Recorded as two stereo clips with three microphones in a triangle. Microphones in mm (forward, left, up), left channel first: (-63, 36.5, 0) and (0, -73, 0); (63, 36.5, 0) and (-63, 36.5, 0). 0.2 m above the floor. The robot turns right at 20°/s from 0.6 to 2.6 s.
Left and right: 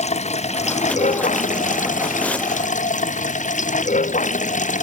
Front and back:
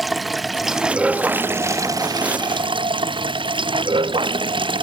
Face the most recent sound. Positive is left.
turn(degrees=130)